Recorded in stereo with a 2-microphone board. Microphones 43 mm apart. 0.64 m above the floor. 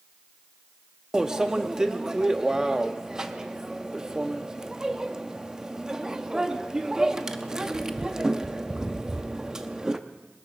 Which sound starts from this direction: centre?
A microwave, at 1.1 s.